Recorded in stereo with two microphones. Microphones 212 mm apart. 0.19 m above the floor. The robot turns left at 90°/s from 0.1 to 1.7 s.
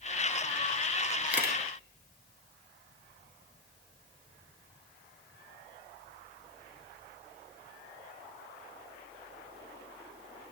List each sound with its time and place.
1.3 s a camera shutter: 70° left, 1.0 m; by 1.6 s 40° left, 1.0 m